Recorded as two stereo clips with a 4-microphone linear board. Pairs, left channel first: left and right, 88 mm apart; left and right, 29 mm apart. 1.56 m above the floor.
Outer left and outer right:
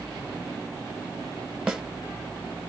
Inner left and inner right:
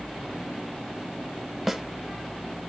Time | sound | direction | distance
1.7 | a snare drum | 5° right (ahead or behind) | 1.2 m